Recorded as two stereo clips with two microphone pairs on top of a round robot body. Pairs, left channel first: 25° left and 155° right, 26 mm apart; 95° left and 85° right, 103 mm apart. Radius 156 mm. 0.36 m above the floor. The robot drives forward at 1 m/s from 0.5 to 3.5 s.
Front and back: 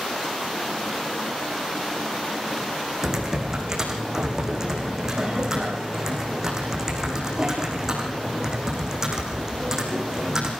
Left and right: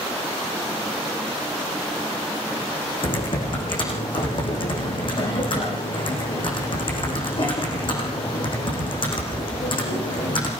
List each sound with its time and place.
3.0 s typing on a keyboard: 130° left, 6 m; by 10.5 s 135° left, 6.5 m